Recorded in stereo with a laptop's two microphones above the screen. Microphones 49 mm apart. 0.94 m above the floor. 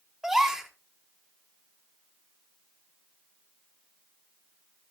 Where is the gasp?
5° right (ahead or behind), 2.0 m.